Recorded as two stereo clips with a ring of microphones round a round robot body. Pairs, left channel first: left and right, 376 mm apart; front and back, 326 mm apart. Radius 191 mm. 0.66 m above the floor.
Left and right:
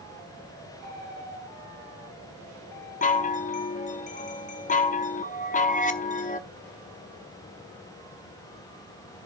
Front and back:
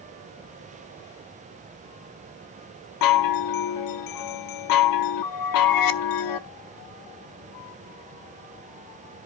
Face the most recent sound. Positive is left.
turn(degrees=20)